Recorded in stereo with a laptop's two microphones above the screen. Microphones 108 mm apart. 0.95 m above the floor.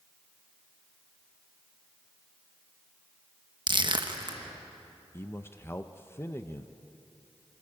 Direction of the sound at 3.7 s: 45° right (ahead or behind).